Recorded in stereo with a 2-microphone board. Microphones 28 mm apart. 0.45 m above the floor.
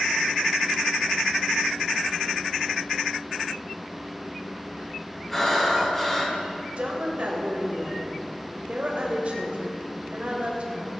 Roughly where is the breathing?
Centre.